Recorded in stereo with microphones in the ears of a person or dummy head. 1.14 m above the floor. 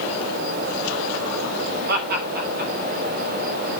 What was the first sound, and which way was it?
Laughter, 60° right (ahead or behind).